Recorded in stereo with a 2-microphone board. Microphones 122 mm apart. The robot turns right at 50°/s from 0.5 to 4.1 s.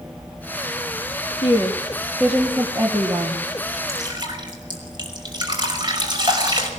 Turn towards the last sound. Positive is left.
turn(degrees=-40)  # may be behind; listen again after turning